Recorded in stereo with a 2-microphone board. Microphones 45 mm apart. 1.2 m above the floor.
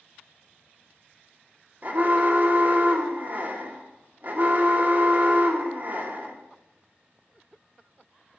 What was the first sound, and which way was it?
An alarm, 40° right (ahead or behind).